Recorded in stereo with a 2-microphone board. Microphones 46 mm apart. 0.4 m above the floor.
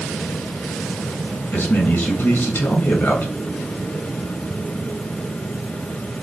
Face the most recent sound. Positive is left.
turn(degrees=35)  # may be behind; listen again after turning